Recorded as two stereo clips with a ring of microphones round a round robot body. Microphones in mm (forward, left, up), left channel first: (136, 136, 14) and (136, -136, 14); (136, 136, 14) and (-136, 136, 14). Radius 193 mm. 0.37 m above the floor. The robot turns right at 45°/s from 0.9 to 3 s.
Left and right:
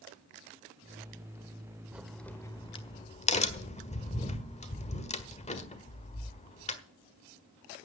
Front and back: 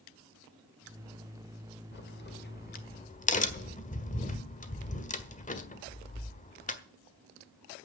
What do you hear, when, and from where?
1.9 s a crack: 5° right, 1.6 m; by 6.8 s 40° left, 1.6 m